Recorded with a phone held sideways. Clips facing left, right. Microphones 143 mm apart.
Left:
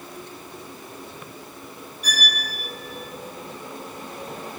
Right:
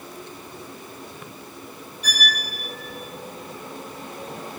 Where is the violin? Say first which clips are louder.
Right 1 dB; 45° left (ahead or behind), 3 m.